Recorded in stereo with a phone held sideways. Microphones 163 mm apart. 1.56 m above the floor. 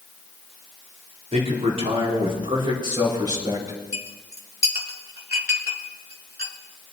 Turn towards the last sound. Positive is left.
turn(degrees=-70)  # may be behind; listen again after turning